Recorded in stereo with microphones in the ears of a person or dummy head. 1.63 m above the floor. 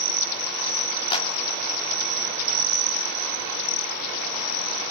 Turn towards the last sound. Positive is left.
turn(degrees=30)  # may be behind; listen again after turning